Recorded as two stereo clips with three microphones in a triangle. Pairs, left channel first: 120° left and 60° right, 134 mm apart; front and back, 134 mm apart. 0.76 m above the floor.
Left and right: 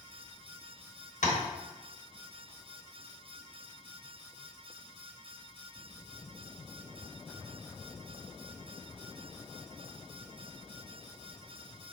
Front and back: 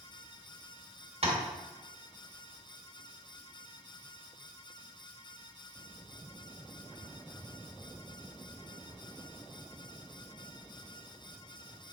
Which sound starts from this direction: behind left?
Tapping, at 1.2 s.